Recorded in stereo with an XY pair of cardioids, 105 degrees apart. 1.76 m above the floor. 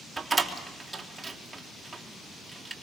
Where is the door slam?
20° right, 4 m.